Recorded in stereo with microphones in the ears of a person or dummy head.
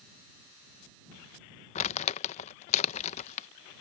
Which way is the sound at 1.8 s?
45° left (ahead or behind).